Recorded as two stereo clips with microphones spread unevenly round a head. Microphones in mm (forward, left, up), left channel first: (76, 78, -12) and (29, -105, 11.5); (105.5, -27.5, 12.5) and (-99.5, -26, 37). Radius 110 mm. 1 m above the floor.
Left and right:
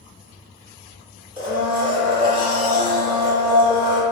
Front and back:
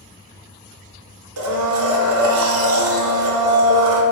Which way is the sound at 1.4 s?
175° right.